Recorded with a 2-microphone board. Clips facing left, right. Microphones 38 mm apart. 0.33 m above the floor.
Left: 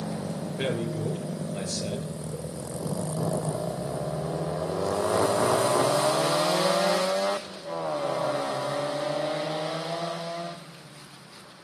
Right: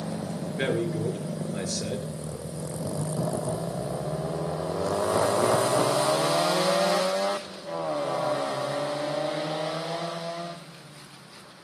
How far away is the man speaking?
About 5.5 m.